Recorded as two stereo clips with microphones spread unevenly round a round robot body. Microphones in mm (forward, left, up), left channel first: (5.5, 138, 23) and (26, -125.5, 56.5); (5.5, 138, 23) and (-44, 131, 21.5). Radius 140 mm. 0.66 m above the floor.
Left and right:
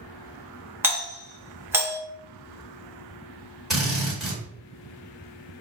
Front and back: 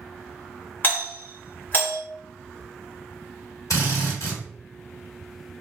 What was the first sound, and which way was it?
A doorbell, straight ahead.